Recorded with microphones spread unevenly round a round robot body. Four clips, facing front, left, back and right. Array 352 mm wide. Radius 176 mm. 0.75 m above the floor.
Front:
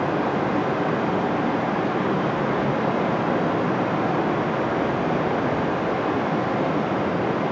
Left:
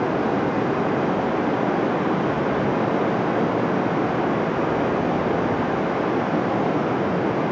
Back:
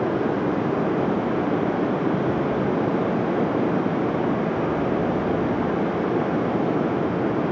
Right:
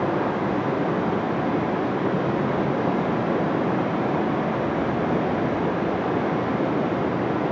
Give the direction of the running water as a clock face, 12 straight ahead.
7 o'clock.